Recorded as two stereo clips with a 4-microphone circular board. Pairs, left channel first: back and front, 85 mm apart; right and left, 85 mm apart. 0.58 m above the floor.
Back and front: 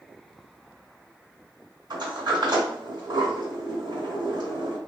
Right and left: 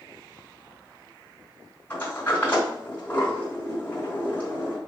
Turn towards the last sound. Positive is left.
turn(degrees=-25)